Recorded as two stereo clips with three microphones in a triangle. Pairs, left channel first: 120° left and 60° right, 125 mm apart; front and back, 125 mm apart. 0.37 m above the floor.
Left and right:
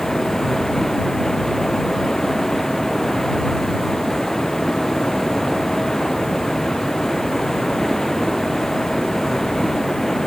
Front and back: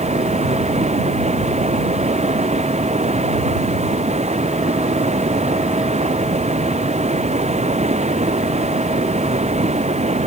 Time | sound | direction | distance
0.0 | running water | 155° right | ?